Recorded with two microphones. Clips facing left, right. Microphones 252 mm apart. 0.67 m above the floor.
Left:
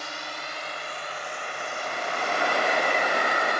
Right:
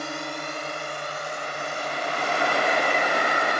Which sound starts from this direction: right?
A drone, at 0.0 s.